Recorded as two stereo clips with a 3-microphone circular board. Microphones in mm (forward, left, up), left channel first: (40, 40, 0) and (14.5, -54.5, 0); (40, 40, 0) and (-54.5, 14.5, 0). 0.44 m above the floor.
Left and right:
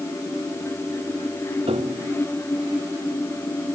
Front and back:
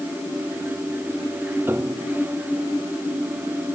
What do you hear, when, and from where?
1.7 s a piano: 100° right